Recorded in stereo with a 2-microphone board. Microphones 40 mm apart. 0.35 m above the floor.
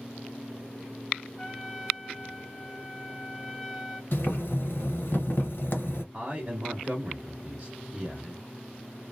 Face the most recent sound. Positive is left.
turn(degrees=-30)  # may be behind; listen again after turning